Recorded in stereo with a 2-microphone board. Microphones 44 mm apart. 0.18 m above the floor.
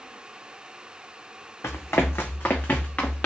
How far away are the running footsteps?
About 0.7 m.